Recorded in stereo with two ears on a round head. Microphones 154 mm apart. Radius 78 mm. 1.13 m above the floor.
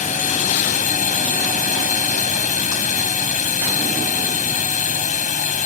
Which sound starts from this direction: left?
A drone, at 0.0 s.